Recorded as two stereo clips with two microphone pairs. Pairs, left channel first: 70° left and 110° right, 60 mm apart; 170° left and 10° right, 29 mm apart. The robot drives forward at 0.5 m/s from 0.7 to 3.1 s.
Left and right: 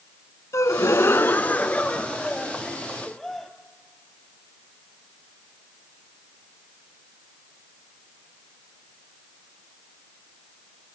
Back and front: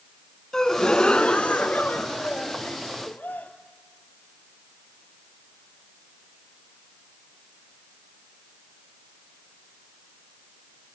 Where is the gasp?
105° left, 0.6 m; by 3.5 s 160° left, 1.5 m.